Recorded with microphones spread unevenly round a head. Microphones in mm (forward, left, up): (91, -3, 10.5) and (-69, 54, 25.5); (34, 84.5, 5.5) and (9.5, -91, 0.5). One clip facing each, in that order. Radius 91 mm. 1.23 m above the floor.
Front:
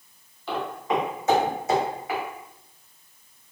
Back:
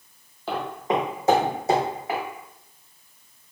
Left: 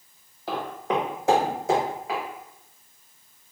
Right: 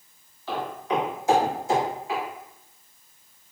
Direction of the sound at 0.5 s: 125° left.